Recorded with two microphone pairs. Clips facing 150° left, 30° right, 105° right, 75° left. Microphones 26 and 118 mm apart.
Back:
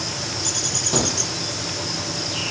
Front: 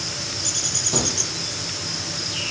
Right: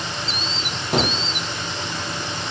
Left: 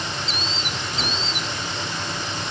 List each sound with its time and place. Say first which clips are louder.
0.9 s a gunshot: back 3 dB, right 11 dB; 130° right, 1.2 m